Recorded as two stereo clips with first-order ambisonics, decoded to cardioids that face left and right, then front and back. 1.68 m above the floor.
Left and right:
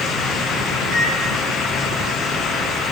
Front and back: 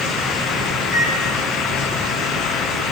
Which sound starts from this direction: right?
A microwave, at 0.8 s.